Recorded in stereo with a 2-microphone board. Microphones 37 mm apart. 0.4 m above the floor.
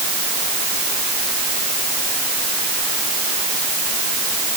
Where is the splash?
No splash in this recording.